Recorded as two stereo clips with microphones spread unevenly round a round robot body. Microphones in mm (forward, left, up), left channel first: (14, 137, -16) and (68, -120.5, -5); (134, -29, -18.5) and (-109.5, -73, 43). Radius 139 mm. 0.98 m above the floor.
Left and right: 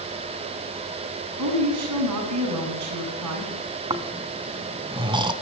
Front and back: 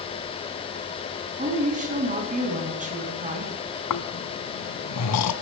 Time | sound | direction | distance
1.4 | a woman speaking | 110° right | 7.5 m
3.9 | snoring | 10° right | 1.6 m